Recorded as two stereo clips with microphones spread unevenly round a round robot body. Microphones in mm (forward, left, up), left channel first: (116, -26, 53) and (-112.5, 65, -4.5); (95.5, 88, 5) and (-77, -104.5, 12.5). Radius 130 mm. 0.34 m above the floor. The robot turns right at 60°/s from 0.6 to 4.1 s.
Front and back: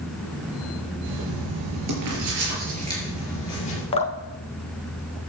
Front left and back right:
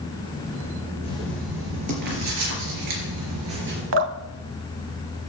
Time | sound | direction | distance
1.0 | writing | 115° left | 4 m
3.9 | dripping | 90° right | 0.7 m